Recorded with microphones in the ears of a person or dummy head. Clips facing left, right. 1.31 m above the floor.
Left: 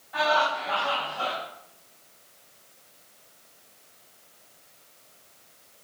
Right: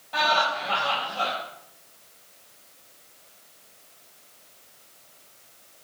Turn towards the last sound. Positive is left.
turn(degrees=-75)  # may be behind; listen again after turning